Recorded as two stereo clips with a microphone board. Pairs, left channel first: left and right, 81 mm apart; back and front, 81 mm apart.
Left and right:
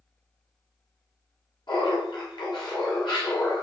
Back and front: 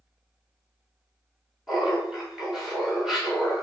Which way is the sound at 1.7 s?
85° left.